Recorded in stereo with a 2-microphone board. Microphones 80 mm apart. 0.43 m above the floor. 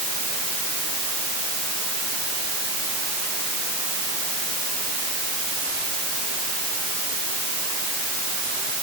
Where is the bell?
I don't hear a bell.